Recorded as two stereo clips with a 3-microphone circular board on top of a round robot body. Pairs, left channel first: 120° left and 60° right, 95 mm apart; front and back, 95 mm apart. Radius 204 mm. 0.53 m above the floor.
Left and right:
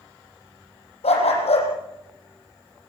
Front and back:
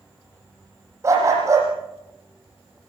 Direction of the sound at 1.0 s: 120° left.